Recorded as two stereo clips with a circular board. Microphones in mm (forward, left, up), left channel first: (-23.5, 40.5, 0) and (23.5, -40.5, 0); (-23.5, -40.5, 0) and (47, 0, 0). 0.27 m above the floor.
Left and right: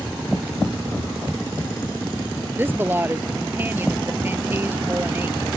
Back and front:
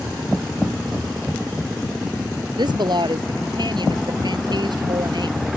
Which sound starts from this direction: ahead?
A woman speaking, at 2.6 s.